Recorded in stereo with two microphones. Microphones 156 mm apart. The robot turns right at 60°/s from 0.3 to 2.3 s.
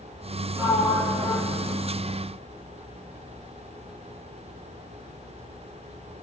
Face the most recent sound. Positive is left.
turn(degrees=-60)